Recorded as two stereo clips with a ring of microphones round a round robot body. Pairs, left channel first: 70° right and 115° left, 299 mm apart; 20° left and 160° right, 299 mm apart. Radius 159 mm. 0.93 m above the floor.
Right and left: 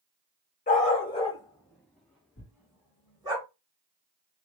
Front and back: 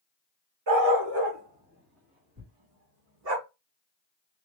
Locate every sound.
0.7 s a dog barking: 135° right, 2.5 m; by 3.4 s 170° right, 4 m
2.4 s tearing paper: 125° right, 2.5 m